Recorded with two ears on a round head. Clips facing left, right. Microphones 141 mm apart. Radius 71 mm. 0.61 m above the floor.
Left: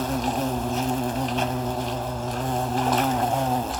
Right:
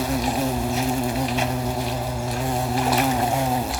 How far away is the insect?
About 1.0 m.